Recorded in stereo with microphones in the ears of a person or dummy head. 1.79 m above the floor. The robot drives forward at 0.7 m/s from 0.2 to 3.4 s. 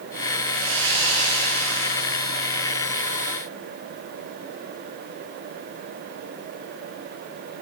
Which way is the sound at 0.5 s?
85° right.